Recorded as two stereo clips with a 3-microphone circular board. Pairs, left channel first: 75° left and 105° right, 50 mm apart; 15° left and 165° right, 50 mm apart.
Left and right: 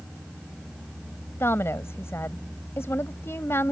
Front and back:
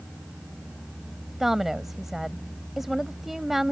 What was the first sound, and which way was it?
A woman speaking, 110° left.